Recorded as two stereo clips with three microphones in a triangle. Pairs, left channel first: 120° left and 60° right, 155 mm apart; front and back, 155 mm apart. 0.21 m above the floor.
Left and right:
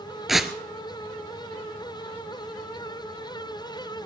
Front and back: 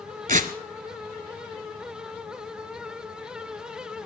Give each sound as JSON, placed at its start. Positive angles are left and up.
{"t": 0.3, "sound": "tearing paper", "azimuth_deg": -150, "distance_m": 0.8}